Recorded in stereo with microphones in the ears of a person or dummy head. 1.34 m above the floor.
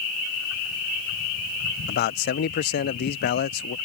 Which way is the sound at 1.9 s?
50° left (ahead or behind).